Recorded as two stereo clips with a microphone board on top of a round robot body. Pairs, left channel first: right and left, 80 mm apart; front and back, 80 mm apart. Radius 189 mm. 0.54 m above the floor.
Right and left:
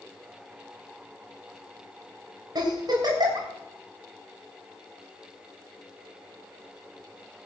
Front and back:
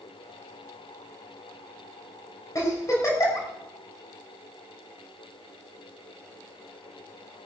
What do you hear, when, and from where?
2.5 s a giggle: 50° left, 3.5 m